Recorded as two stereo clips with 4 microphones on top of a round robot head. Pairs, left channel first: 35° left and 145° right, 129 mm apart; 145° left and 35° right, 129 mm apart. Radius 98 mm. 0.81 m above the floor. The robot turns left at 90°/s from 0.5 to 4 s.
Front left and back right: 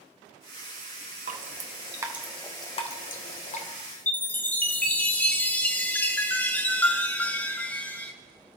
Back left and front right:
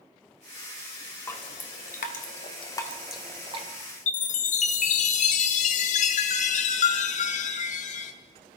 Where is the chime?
115° left, 0.7 m.